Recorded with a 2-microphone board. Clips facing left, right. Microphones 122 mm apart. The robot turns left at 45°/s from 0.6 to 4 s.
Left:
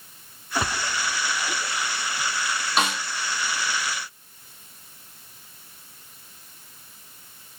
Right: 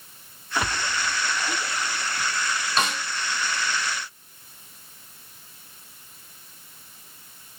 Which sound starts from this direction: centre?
A snare drum, at 2.8 s.